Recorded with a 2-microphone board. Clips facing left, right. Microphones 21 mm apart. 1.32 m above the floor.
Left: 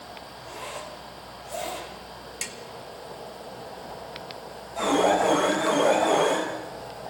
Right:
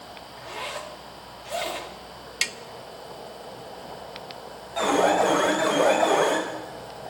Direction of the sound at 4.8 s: 50° right (ahead or behind).